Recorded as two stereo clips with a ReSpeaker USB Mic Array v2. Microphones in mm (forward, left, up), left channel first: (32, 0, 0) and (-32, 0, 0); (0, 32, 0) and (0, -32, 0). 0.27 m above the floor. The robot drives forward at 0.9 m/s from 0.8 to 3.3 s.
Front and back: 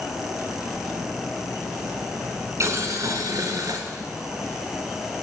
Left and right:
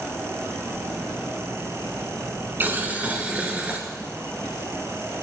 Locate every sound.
2.6 s boiling: 145° right, 1.0 m; by 3.8 s 160° right, 1.6 m